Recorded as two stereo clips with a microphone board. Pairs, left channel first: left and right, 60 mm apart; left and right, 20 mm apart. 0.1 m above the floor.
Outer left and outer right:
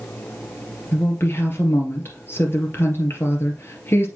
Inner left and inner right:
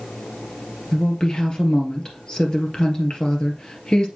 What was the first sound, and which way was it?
A woman speaking, 40° left (ahead or behind).